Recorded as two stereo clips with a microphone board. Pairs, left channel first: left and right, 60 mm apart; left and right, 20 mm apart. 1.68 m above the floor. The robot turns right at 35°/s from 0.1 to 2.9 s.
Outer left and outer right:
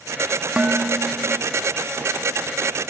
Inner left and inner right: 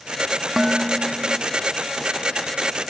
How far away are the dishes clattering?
About 0.8 m.